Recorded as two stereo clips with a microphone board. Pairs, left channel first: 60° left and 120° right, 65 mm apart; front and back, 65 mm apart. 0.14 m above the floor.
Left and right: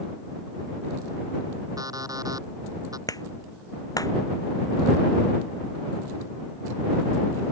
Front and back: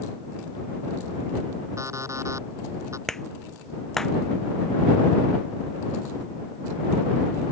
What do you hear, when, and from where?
1.8 s an alarm clock: 140° right
3.1 s a clap: 80° left